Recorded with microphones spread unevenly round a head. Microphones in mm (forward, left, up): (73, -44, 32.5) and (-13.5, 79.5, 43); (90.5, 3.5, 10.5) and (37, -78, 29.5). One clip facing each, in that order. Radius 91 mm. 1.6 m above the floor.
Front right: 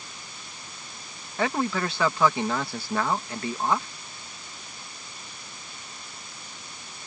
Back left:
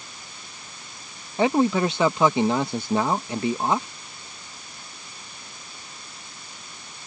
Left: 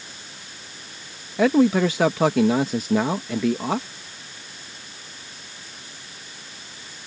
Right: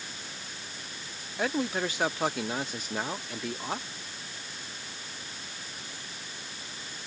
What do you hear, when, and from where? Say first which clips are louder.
1.4 s a man speaking: back left 7 dB, left 13 dB; 55° left